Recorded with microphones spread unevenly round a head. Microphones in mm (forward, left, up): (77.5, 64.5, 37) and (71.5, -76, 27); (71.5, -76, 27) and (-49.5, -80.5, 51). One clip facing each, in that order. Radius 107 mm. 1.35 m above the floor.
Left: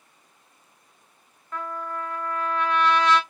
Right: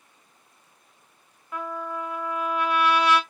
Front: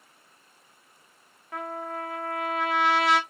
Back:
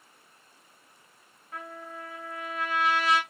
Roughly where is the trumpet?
Ahead.